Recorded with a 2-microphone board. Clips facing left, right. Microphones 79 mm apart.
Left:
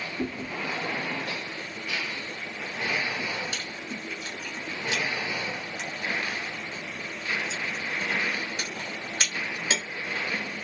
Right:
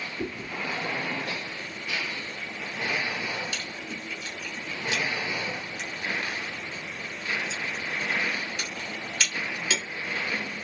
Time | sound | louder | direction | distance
0.2 | chewing | left 1 dB | 35° left (ahead or behind) | 1.3 m